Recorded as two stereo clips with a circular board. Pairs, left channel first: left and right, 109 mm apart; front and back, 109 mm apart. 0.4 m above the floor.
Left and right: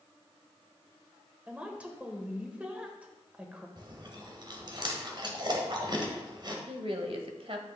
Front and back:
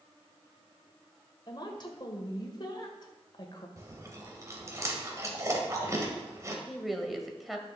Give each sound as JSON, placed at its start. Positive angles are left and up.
{"t": 1.5, "sound": "a woman speaking", "azimuth_deg": -15, "distance_m": 1.7}
{"t": 3.8, "sound": "chewing", "azimuth_deg": -125, "distance_m": 1.8}
{"t": 6.7, "sound": "a woman speaking", "azimuth_deg": -90, "distance_m": 1.5}